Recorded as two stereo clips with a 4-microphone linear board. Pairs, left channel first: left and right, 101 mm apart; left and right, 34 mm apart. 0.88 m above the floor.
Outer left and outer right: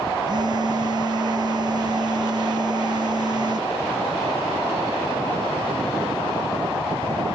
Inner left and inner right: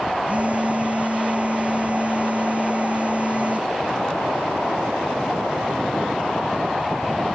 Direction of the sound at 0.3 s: 45° right (ahead or behind).